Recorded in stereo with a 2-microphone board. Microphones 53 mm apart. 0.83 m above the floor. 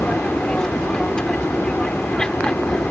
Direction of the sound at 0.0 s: 15° left (ahead or behind).